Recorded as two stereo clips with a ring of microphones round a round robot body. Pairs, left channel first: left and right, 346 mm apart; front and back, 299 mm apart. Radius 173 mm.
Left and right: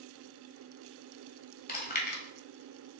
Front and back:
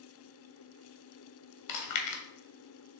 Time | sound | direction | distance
1.7 | chewing | 25° left | 1.5 m